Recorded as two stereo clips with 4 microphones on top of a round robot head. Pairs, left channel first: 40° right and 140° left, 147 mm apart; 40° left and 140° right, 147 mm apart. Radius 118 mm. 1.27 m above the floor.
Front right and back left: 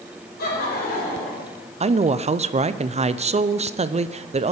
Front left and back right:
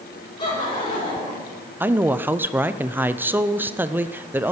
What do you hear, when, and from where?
0.4 s laughter: 20° right, 5.5 m
1.8 s a woman speaking: 145° left, 0.6 m